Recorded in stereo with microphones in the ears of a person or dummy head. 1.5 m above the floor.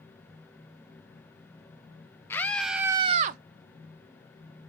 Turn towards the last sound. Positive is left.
turn(degrees=-55)  # may be behind; listen again after turning